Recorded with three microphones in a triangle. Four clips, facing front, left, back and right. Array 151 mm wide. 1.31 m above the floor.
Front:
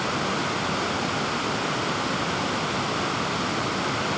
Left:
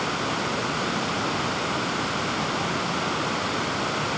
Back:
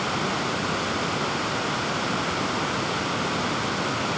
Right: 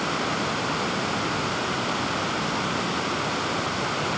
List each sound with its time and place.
Only background noise.